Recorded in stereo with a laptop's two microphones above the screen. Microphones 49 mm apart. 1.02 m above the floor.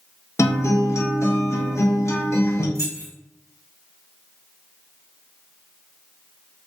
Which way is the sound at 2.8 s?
80° left.